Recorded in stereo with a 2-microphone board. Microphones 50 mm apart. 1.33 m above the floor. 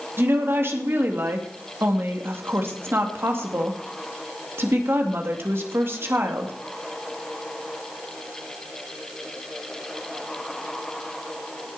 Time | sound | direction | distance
0.2 | a woman speaking | 55° right (ahead or behind) | 2.5 m